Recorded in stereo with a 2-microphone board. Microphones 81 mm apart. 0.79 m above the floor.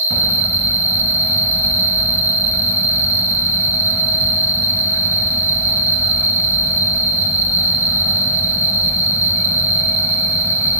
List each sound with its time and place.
0.0 s an insect: 35° left (ahead or behind), 1.5 m